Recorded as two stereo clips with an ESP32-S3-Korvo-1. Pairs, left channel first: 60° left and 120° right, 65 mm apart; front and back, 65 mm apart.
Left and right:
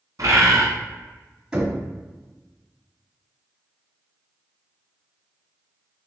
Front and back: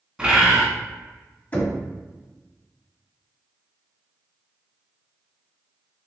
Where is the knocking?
50° right, 1.6 m.